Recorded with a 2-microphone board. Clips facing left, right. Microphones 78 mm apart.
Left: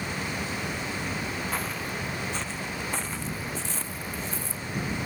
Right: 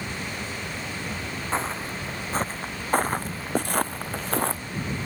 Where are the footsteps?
30° right (ahead or behind); by 4.6 s 75° right (ahead or behind).